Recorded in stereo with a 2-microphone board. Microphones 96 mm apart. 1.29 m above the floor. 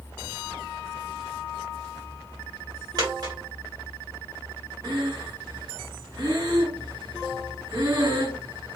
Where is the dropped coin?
45° right (ahead or behind), 2 m.